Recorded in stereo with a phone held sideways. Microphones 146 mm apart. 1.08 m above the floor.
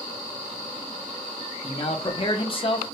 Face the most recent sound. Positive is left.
turn(degrees=40)  # may be behind; listen again after turning